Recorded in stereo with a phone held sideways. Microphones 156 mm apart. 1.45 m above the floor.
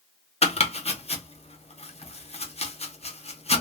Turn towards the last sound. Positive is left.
turn(degrees=45)  # may be behind; listen again after turning